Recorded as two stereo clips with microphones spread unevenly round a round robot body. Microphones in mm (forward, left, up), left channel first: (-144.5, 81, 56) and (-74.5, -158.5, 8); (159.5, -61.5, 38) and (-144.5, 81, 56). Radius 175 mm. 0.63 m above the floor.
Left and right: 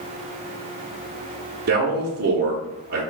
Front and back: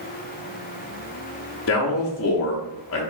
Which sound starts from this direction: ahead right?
A man speaking, at 1.7 s.